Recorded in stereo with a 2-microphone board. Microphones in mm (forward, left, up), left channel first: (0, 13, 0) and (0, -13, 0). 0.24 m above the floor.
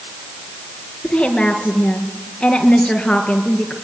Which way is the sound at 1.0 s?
30° left (ahead or behind).